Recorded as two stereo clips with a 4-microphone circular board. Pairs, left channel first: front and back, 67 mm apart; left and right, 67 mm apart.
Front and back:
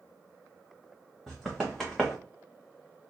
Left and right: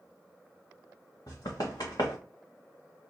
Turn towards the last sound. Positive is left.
turn(degrees=95)